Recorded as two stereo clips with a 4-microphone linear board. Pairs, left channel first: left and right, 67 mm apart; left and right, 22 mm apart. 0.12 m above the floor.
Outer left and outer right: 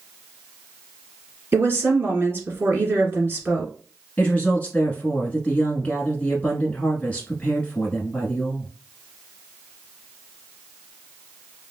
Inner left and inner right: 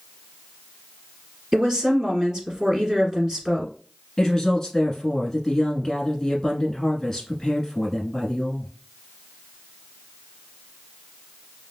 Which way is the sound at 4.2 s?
20° left (ahead or behind).